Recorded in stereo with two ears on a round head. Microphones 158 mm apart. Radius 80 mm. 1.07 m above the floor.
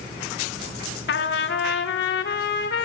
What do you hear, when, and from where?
1.1 s a trumpet: 60° left (ahead or behind), 1.4 m